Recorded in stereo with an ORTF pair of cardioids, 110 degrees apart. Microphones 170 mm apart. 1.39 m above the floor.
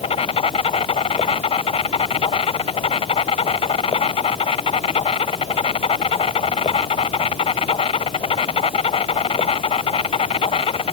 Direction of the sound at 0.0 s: 35° left.